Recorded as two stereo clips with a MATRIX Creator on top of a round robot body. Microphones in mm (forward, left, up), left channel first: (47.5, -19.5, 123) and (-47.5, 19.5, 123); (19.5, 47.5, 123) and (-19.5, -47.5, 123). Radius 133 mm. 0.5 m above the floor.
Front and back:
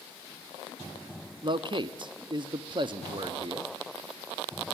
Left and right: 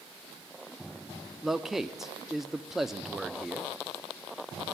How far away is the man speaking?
About 0.9 m.